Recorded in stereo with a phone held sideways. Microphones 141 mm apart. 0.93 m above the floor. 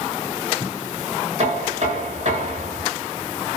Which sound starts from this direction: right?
Knocking, at 1.4 s.